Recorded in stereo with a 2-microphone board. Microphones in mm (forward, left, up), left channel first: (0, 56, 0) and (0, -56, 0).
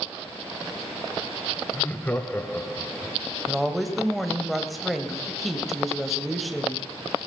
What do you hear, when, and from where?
1.7 s laughter: 15° left (ahead or behind), 1.0 m
3.5 s a woman speaking: centre (ahead or behind), 1.2 m